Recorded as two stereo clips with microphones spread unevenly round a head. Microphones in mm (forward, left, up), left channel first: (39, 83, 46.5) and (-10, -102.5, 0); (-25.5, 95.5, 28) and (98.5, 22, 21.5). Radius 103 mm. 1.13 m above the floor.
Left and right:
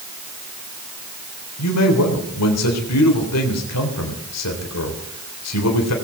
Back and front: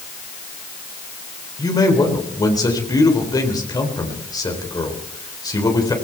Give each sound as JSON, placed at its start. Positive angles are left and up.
{"t": 1.6, "sound": "a man speaking", "azimuth_deg": 85, "distance_m": 3.5}